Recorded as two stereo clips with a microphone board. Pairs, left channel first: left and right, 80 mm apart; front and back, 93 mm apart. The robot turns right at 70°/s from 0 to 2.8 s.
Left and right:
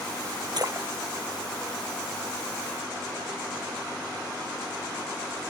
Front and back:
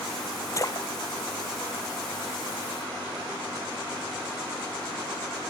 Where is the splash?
60° right; by 2.6 s 85° left.